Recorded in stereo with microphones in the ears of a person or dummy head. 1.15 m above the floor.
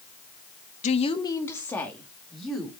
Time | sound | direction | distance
0.8 | a woman speaking | 35° left (ahead or behind) | 1.0 m